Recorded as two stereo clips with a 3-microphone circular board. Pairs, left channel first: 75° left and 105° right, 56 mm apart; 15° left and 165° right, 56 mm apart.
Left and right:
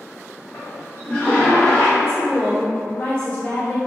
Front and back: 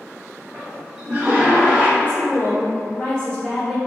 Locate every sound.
0.5 s a toilet flushing: 130° left, 1.2 m
2.0 s a woman speaking: 80° left, 0.9 m